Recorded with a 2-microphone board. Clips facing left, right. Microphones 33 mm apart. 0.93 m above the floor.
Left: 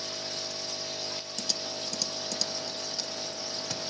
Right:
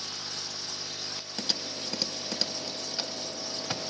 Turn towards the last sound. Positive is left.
turn(degrees=-30)  # may be behind; listen again after turning